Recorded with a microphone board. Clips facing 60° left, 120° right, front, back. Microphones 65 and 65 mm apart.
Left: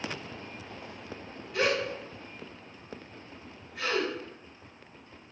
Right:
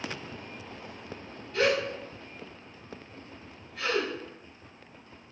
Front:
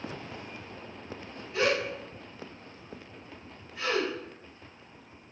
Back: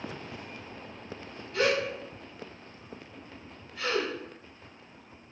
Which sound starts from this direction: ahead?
A gasp, at 1.5 s.